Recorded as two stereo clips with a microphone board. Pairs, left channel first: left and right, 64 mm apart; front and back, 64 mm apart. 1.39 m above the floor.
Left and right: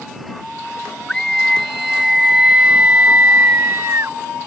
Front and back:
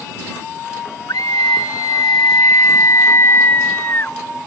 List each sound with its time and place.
1.1 s a scream: 10° left; by 4.2 s 55° right